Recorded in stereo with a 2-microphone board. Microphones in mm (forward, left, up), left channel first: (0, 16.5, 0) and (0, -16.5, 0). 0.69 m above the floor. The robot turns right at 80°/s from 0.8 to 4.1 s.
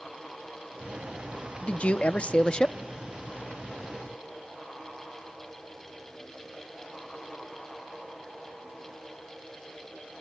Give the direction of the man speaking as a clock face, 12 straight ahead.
10 o'clock.